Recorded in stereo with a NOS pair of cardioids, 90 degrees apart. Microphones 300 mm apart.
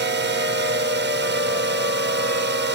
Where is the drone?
35° right.